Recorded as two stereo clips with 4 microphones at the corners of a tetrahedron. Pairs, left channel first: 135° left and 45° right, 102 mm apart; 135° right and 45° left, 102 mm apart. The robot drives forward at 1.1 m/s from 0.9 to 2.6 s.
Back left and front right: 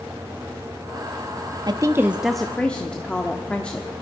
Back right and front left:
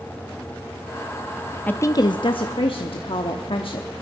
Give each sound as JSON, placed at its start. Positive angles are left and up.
{"t": 1.7, "sound": "a woman speaking", "azimuth_deg": -65, "distance_m": 0.7}